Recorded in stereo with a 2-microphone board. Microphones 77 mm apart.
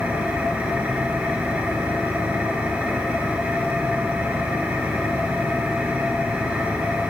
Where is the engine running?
20° right (ahead or behind), 2.5 m.